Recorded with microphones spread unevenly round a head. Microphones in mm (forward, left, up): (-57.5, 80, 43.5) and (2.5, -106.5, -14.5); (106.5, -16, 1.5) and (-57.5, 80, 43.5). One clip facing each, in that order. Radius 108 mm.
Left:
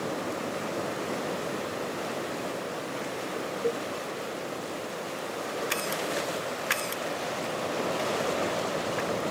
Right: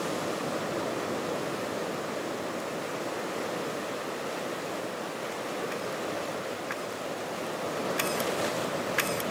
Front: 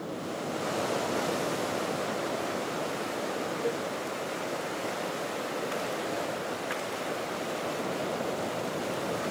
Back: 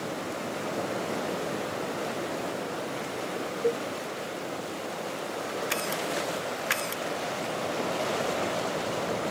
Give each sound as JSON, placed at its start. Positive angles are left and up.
{"t": 3.6, "sound": "a cowbell", "azimuth_deg": 95}